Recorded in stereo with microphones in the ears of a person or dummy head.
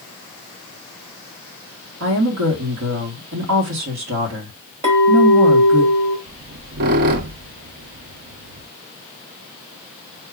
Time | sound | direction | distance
2.0 | a woman speaking | 75° right (ahead or behind) | 1.3 m
4.8 | a clink | 25° right (ahead or behind) | 1.3 m
6.3 | a squeak | 45° right (ahead or behind) | 0.5 m